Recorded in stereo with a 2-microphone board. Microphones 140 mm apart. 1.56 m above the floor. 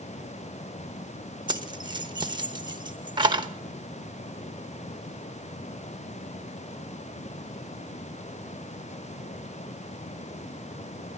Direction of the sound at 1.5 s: 35° right (ahead or behind).